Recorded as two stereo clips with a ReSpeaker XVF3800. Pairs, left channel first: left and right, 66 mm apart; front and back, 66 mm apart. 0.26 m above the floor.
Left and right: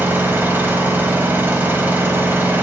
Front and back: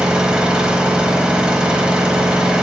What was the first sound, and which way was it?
An engine running, 115° right.